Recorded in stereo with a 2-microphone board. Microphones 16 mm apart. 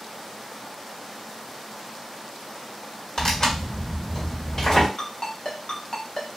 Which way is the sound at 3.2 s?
45° left (ahead or behind).